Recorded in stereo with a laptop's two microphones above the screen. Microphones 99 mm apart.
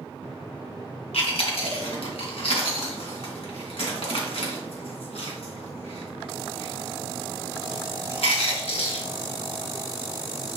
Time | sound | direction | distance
1.1 | chewing | 75° left (ahead or behind) | 2.5 m